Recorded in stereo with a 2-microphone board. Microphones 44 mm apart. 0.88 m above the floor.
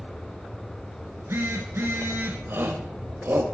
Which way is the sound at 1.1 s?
65° right (ahead or behind).